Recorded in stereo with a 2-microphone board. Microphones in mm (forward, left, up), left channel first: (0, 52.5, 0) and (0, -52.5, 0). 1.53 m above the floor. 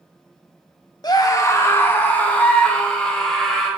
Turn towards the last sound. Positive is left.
turn(degrees=5)  # may be behind; listen again after turning